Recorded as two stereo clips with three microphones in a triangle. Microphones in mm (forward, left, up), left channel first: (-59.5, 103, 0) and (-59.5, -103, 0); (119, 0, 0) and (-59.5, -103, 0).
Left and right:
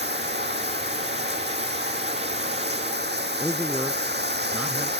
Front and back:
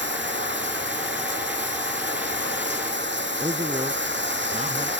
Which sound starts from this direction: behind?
A man speaking, at 3.4 s.